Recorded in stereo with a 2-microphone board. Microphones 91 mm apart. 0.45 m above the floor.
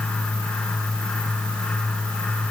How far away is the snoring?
I don't hear snoring.